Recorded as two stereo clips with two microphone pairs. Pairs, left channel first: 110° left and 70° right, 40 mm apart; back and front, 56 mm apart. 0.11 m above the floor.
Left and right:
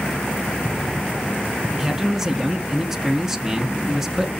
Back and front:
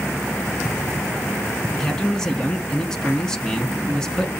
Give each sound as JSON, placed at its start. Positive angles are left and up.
{"t": 1.7, "sound": "a man speaking", "azimuth_deg": -135, "distance_m": 1.1}